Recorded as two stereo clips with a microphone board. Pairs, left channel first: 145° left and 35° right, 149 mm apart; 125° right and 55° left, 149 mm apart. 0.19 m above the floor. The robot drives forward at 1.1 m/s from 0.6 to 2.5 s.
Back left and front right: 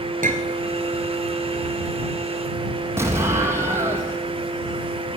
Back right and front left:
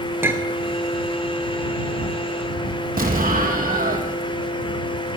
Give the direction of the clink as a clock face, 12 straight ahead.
1 o'clock.